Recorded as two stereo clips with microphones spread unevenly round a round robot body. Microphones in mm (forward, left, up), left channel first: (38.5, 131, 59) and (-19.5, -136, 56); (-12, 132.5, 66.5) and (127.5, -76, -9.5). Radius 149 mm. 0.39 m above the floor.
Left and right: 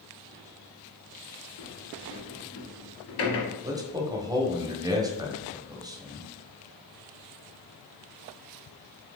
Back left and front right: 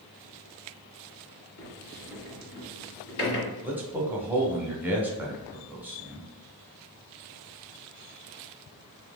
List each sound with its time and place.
1.6 s a sliding door: 105° left, 1.7 m
3.6 s a man speaking: 45° right, 0.9 m